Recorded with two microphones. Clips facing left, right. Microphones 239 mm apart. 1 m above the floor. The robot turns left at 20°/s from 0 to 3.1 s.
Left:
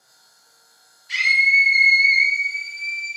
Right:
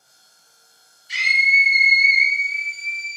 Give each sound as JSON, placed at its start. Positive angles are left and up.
{"t": 1.1, "sound": "a scream", "azimuth_deg": 85, "distance_m": 1.7}